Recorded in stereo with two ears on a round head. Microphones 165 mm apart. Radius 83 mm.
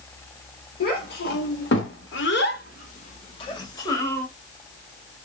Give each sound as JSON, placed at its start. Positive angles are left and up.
{"t": 0.8, "sound": "a child speaking", "side_deg": 55, "distance_m": 1.6}